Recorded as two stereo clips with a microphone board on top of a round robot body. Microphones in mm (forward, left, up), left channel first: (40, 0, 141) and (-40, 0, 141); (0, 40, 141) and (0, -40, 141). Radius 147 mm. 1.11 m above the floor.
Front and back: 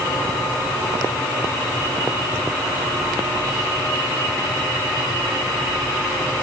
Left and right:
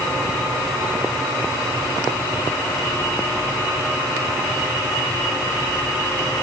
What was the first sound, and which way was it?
Only background noise.